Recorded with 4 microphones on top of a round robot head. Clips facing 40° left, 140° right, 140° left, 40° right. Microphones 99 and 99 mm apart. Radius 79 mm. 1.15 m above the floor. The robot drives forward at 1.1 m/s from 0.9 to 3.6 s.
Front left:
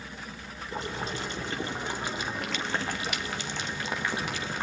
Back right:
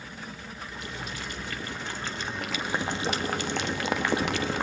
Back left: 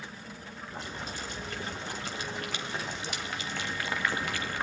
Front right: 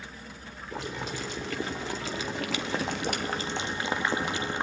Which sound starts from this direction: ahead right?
Boiling, at 0.7 s.